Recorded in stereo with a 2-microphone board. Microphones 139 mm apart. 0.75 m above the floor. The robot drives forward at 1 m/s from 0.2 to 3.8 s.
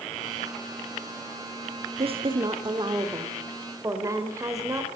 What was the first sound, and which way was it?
A woman speaking, 45° right (ahead or behind).